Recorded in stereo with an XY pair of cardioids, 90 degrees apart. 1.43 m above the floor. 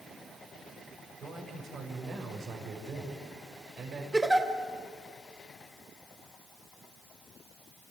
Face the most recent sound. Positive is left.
turn(degrees=-15)